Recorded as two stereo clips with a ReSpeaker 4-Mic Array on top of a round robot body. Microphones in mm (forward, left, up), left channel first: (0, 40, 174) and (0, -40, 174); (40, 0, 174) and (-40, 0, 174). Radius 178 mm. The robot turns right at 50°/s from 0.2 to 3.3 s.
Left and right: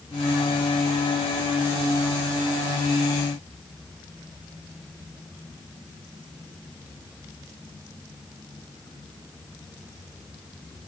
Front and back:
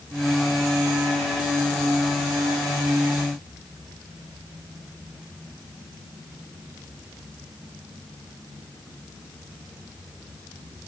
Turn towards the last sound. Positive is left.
No sound to turn to.